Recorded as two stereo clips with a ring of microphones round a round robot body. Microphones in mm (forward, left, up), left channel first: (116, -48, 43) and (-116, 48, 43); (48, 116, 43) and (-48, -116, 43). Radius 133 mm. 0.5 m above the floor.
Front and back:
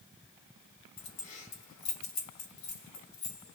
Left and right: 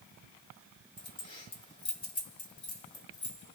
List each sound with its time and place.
1.0 s keys jangling: 5° right, 2.5 m